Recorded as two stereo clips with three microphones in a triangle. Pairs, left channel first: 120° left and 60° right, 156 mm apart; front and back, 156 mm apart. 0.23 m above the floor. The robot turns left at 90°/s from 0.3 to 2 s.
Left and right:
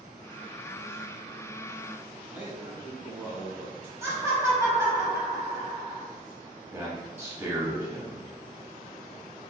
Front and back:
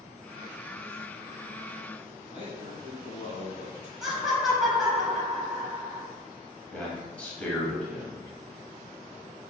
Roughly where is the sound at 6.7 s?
Ahead right.